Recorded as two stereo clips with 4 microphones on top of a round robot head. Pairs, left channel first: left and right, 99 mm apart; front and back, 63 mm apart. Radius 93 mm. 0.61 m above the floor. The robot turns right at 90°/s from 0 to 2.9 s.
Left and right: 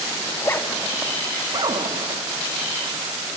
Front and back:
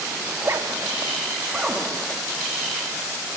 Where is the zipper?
125° left, 1.6 m; by 2.3 s 55° right, 1.6 m.